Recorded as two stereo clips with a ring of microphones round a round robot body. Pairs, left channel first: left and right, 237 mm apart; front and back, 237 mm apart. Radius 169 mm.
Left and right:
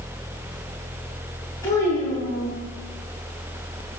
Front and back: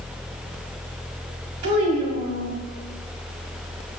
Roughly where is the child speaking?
Behind.